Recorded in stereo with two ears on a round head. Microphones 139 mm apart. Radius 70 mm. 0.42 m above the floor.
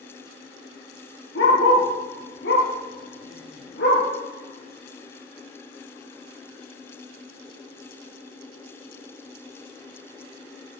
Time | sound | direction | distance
1.4 | a dog barking | 85° left | 4 m